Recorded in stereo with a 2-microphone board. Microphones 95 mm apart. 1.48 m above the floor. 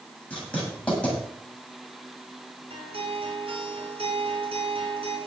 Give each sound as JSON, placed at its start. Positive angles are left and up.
{"t": 0.3, "sound": "writing", "side_deg": 15, "distance_m": 8.5}
{"t": 2.7, "sound": "a guitar", "side_deg": -75, "distance_m": 3.5}